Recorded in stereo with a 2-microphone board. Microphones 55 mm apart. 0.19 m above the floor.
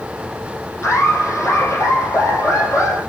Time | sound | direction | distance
0.8 | laughter | 50° left (ahead or behind) | 6.5 m